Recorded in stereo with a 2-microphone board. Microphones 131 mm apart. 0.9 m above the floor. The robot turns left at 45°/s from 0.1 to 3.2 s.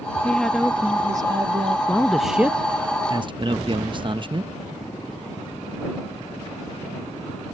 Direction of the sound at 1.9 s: 15° left.